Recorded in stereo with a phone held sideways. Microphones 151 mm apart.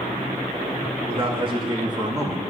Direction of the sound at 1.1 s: 40° right (ahead or behind).